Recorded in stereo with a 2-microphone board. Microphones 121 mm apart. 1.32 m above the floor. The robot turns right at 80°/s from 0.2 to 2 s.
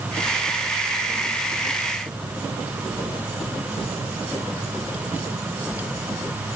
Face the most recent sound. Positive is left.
No sound to turn to.